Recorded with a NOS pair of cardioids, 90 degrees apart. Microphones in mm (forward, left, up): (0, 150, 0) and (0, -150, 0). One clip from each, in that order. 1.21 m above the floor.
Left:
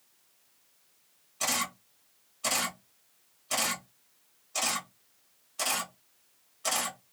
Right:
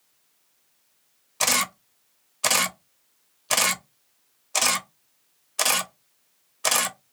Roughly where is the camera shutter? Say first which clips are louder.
Right 8 dB; ahead right.